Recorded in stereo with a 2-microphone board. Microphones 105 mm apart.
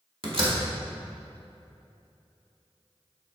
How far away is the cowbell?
No cowbell in this recording.